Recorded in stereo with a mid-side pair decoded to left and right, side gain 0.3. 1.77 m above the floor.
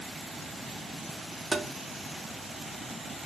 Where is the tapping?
35° right, 0.5 m.